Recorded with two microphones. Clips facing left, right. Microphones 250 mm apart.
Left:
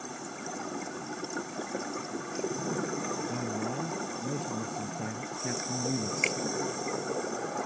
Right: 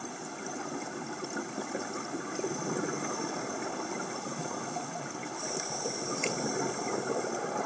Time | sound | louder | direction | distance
3.3 | a man speaking | left 3 dB | 85° left | ?
6.2 | a finger snap | even | 85° left | ?